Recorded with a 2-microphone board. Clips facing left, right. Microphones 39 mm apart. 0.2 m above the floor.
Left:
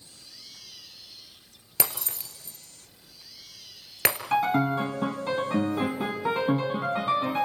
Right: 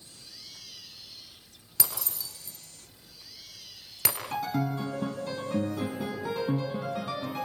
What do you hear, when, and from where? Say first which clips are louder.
1.8 s breaking glass: left 3 dB; 55° left (ahead or behind), 2.5 m
4.3 s a piano: left 7 dB; 45° left (ahead or behind), 1.9 m